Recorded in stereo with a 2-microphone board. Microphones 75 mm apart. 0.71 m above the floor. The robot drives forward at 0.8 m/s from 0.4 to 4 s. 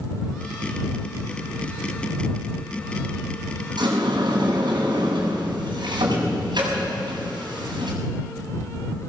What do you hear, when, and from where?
3.8 s a sliding door: 75° right (ahead or behind), 6.5 m; by 8.0 s 80° right, 6.5 m